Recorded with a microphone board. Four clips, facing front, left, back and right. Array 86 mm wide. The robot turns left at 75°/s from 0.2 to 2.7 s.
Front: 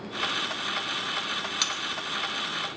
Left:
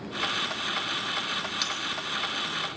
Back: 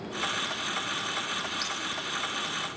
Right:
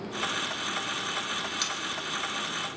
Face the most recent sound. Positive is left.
turn(degrees=-75)